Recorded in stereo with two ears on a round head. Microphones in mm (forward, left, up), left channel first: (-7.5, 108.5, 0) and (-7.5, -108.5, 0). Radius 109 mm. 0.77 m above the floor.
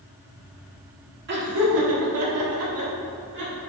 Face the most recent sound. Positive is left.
turn(degrees=-45)  # may be behind; listen again after turning